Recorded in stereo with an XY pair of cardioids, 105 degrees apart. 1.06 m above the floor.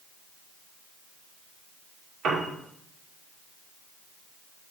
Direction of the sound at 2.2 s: 65° right.